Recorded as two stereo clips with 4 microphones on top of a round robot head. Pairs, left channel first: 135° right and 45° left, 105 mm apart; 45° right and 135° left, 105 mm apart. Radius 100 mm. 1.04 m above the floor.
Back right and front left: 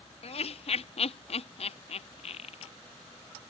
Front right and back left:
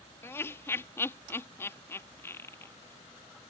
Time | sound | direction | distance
0.2 | laughter | 115° right | ?